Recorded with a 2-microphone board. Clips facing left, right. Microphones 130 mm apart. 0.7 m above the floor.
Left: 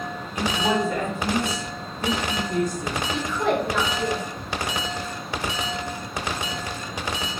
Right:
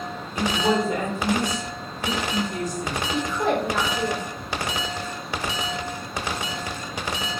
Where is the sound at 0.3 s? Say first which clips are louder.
Right 1 dB; 35° right (ahead or behind), 1.2 m; by 3.0 s 65° left (ahead or behind), 1.2 m.